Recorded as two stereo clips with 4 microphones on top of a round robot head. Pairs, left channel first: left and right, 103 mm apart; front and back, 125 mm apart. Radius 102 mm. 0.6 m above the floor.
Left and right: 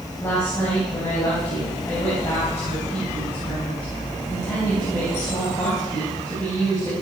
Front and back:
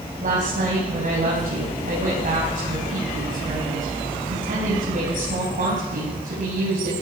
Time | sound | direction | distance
0.2 | a woman speaking | 160° left | 5 m